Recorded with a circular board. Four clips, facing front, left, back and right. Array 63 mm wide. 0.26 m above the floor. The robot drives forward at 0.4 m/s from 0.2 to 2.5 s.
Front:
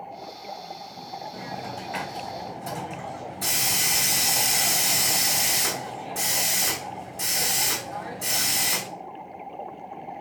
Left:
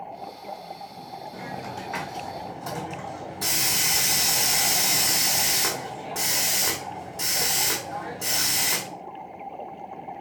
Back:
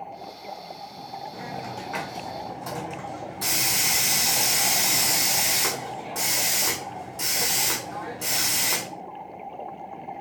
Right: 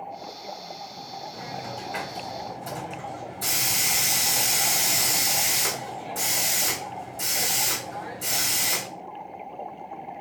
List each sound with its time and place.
1.3 s a hiss: 120° left, 2 m; by 8.9 s 130° left, 2.5 m